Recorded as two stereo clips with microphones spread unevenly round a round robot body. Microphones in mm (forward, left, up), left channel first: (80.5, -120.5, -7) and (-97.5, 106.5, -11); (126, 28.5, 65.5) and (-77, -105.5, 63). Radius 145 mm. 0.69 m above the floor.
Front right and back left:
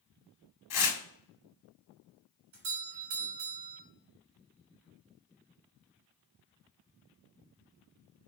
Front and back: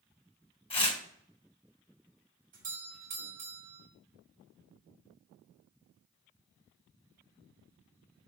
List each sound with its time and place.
0.7 s tearing paper: 35° right, 3.5 m
2.5 s a doorbell: 155° left, 3.5 m